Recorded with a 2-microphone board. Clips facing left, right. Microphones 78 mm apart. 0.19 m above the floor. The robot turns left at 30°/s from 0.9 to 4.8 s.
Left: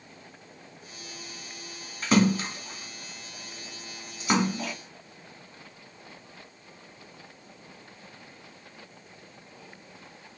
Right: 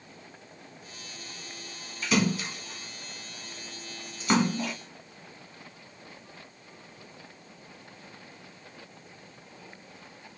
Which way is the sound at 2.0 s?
45° left (ahead or behind).